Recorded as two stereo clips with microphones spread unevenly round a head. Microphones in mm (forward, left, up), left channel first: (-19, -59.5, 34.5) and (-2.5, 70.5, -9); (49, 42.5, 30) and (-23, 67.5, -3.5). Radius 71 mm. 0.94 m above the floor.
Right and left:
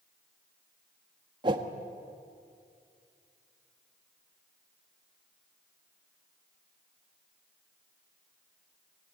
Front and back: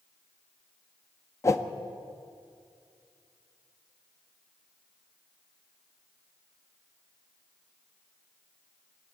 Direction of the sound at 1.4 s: 40° left.